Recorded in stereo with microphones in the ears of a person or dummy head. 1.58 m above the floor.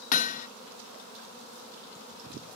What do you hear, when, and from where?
0.1 s hammering: 45° left (ahead or behind)